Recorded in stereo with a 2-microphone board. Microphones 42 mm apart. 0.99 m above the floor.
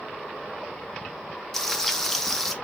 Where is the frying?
10° left (ahead or behind), 0.5 m.